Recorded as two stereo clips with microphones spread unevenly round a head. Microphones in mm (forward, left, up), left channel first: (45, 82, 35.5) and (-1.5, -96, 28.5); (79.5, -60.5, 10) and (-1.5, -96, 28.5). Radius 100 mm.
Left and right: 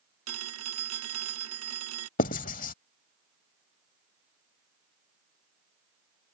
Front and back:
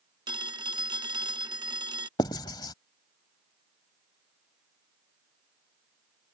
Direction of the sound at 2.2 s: 75° left.